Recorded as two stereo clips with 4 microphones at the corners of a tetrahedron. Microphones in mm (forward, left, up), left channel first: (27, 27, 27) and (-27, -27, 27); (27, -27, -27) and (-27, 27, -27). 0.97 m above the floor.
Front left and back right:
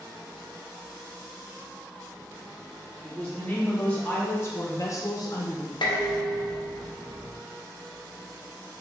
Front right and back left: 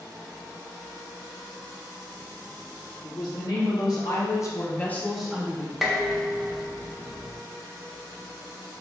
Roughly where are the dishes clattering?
Ahead left.